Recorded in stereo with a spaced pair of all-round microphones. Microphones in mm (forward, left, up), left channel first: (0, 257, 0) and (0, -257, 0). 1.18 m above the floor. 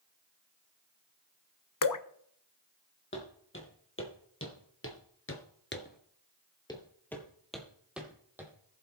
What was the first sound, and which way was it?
Dripping, 40° left (ahead or behind).